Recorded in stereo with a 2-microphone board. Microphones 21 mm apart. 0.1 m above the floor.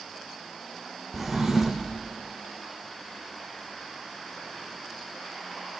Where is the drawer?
Centre (ahead or behind), 2 m.